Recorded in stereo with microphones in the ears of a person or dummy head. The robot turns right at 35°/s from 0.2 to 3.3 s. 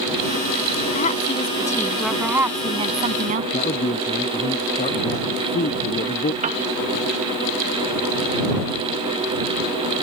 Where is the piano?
40° right (ahead or behind).